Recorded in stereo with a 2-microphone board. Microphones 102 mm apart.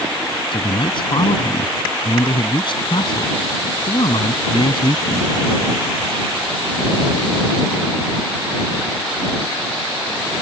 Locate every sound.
0.5 s a man speaking: 55° left (ahead or behind)